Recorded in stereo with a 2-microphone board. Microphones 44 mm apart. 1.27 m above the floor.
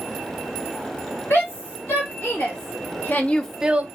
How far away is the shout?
About 3 m.